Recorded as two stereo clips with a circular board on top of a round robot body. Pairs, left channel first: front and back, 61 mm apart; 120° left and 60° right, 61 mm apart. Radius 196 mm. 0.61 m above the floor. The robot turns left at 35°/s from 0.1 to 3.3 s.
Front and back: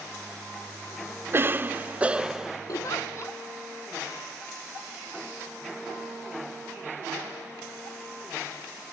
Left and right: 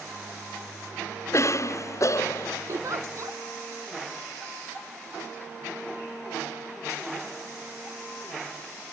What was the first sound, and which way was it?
A cough, 140° left.